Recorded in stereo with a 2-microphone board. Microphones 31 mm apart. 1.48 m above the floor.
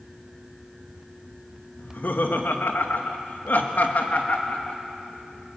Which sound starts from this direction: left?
Laughter, at 1.8 s.